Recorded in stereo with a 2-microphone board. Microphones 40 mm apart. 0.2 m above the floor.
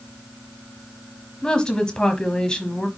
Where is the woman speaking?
20° left (ahead or behind), 1.1 m.